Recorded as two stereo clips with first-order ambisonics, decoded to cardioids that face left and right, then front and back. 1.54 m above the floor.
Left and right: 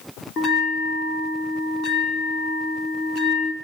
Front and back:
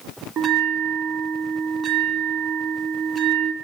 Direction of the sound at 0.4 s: 125° left.